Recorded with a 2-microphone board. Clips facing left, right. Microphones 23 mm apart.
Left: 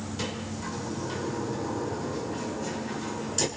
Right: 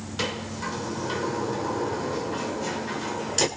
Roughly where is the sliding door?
Right.